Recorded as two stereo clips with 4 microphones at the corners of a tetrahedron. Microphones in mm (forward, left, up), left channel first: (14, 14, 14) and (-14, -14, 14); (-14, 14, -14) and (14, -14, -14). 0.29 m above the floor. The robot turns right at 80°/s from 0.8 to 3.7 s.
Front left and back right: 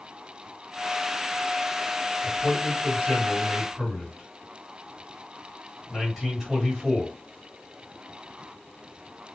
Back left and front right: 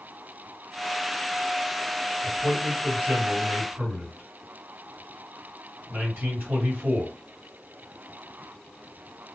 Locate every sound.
2.2 s a man speaking: 170° right, 2 m; by 7.1 s 55° right, 2 m